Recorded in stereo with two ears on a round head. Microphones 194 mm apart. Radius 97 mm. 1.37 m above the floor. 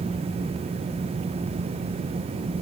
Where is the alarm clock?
I don't hear an alarm clock.